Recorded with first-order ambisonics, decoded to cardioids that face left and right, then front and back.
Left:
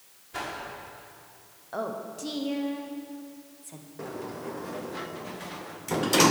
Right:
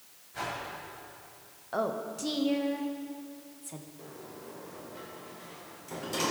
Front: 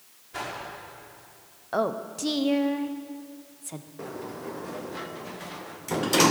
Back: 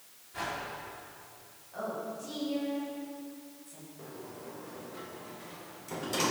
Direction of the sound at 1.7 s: 5° right.